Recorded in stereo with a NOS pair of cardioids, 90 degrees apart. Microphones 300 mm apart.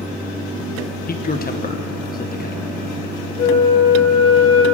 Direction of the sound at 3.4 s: 55° left.